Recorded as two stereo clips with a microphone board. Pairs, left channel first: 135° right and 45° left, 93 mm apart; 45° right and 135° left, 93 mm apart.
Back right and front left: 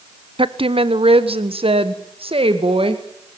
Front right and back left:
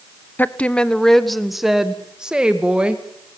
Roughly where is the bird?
I don't hear a bird.